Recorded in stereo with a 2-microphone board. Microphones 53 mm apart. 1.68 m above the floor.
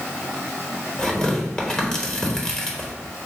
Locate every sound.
1.0 s tearing paper: 20° left (ahead or behind), 0.9 m